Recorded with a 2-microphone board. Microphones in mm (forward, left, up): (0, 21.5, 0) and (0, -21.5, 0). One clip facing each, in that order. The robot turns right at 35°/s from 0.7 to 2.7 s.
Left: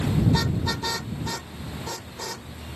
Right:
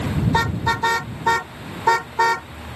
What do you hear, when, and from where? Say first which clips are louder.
0.3 s a car horn: right 5 dB; 35° right (ahead or behind); by 2.5 s 85° right